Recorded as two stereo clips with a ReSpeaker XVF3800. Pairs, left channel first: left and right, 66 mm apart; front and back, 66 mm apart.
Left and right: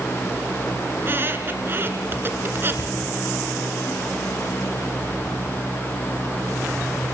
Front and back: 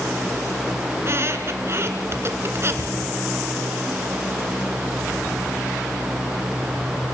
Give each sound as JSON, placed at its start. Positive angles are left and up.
{"t": 0.9, "sound": "a squeak", "azimuth_deg": -140, "distance_m": 1.8}
{"t": 2.8, "sound": "a cupboard door", "azimuth_deg": 145, "distance_m": 1.9}